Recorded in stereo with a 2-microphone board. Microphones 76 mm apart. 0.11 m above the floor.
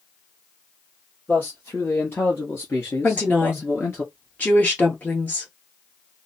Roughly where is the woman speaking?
Left.